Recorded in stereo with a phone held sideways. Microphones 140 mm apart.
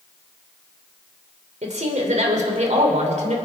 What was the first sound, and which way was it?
A woman speaking, 60° right (ahead or behind).